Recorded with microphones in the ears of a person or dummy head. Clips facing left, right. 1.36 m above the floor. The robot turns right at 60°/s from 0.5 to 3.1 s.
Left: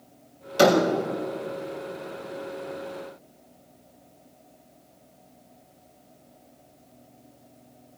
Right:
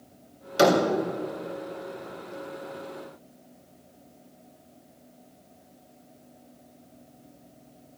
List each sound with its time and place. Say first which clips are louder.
0.6 s a door slam: left 2 dB; 10° right (ahead or behind), 4 m; by 0.8 s 5° left (ahead or behind), 4 m